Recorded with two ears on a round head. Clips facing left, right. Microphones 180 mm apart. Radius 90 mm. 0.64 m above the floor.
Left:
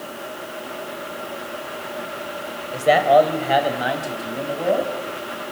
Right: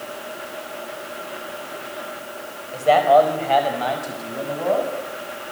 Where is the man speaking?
20° left (ahead or behind), 4 m; by 4.9 s 10° left (ahead or behind), 6 m.